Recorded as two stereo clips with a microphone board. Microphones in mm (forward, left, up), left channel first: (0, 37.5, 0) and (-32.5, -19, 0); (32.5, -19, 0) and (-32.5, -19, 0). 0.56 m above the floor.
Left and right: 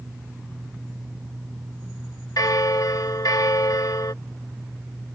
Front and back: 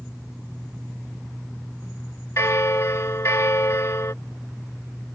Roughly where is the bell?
Ahead left.